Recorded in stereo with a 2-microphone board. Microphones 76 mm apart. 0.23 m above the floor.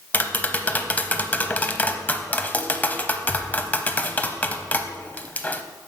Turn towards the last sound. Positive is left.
turn(degrees=20)  # may be behind; listen again after turning